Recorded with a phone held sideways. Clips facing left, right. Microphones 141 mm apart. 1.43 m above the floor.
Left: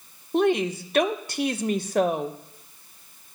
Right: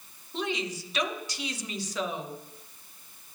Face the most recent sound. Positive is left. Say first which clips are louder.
# left 11 dB
turn(degrees=55)  # may be behind; listen again after turning